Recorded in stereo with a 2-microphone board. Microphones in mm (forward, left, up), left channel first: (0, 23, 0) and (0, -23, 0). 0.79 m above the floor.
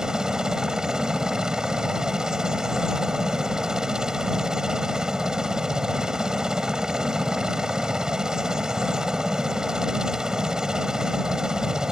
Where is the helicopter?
15° right (ahead or behind).